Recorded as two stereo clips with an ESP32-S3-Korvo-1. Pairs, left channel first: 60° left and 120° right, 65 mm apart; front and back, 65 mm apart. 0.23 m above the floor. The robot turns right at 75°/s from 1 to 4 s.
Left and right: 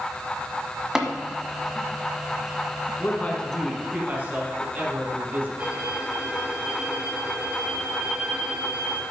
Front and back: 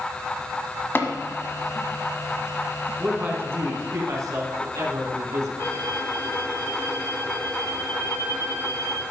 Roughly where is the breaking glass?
No breaking glass in this recording.